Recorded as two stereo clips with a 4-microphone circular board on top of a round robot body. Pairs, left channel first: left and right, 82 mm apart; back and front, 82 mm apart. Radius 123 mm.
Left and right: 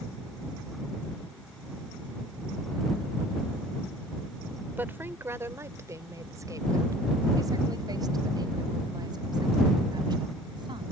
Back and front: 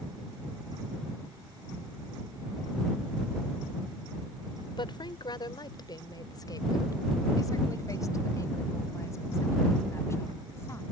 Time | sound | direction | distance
4.7 | a woman speaking | 155° right | ?